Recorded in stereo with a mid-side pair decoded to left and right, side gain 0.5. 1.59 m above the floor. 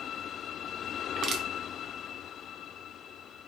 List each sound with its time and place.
1.2 s crushing: 55° right, 0.8 m